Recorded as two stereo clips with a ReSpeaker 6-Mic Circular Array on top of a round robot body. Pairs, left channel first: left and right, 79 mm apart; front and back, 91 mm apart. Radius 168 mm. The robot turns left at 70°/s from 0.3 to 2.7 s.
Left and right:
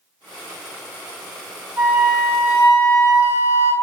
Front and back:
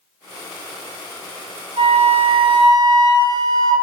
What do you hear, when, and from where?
1.8 s a flute: 160° right, 0.9 m; by 3.7 s 135° left, 0.9 m